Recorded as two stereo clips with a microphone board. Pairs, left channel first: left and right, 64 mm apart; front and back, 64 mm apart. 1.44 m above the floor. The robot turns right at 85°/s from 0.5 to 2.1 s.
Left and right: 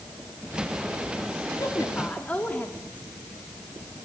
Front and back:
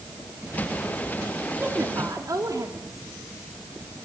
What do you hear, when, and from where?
1.6 s a woman speaking: 115° left, 3 m; by 3.1 s 155° left, 3 m